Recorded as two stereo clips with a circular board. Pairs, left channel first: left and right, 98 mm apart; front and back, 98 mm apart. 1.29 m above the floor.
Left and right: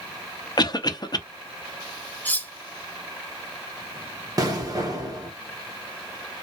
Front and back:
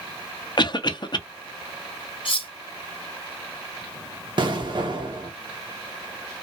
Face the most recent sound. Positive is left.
turn(degrees=-140)